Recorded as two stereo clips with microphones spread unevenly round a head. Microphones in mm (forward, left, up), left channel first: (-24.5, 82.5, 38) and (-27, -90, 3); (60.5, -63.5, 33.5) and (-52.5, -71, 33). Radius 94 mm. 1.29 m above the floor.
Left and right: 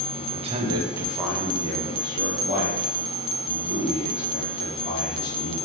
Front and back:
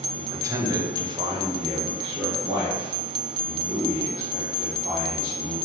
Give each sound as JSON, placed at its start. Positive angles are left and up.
{"t": 0.2, "sound": "a man speaking", "azimuth_deg": -110, "distance_m": 0.8}